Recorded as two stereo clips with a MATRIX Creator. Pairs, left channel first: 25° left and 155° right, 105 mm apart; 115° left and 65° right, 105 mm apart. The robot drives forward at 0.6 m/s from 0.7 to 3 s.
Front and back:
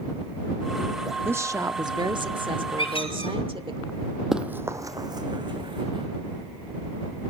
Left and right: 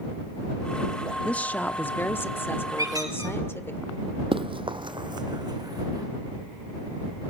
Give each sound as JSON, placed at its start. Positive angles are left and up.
{"t": 1.2, "sound": "a woman speaking", "azimuth_deg": 170, "distance_m": 0.7}
{"t": 2.8, "sound": "a squeak", "azimuth_deg": -10, "distance_m": 4.5}
{"t": 4.3, "sound": "running footsteps", "azimuth_deg": -70, "distance_m": 1.0}